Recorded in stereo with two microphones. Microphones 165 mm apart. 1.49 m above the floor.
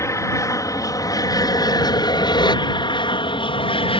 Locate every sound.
0.0 s an aircraft: 20° left (ahead or behind); by 4.0 s 35° left (ahead or behind)